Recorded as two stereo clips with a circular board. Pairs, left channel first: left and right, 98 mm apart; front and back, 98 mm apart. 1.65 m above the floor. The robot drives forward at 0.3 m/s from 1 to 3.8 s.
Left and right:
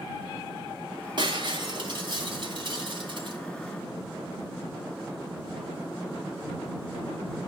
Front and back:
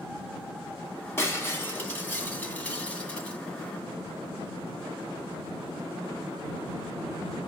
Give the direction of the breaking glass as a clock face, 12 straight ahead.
2 o'clock.